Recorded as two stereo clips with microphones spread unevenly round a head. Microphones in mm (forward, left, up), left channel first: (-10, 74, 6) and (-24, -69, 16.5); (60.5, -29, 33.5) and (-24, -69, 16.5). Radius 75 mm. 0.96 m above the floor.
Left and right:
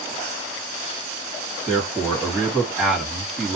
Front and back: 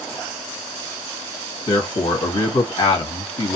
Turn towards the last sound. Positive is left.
turn(degrees=-5)